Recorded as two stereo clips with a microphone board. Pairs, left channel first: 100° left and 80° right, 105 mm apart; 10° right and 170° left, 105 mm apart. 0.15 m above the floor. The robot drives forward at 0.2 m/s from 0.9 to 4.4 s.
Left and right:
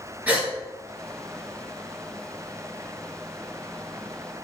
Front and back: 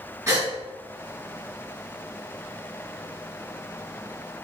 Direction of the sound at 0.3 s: 140° right.